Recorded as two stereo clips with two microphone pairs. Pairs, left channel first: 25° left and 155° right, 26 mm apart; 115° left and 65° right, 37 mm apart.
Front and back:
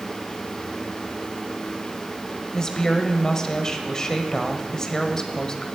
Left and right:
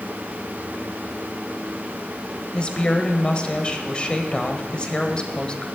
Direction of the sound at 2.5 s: 75° left.